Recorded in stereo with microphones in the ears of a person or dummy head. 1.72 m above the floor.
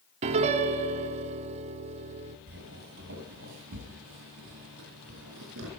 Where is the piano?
40° right (ahead or behind), 0.8 m.